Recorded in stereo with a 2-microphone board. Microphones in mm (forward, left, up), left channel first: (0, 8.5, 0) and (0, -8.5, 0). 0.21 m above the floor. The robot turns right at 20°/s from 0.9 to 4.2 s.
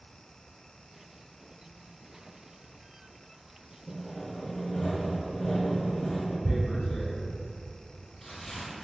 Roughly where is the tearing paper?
Left.